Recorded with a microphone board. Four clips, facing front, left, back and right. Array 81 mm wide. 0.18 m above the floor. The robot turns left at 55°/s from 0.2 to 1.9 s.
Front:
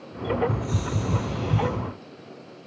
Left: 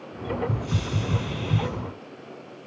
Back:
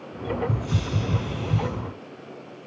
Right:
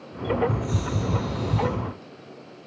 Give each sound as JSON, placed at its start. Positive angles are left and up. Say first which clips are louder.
{"t": 0.5, "sound": "a hiss", "louder": "right 2 dB, even", "azimuth_deg": 145, "distance_m": 1.9}